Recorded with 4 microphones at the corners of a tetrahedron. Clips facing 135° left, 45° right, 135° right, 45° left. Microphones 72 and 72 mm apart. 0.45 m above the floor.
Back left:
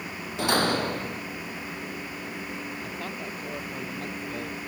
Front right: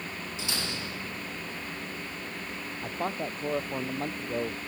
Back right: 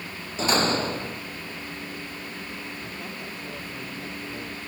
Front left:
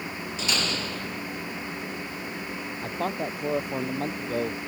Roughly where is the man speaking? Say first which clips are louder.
Front right 3 dB, front left 8 dB; ahead.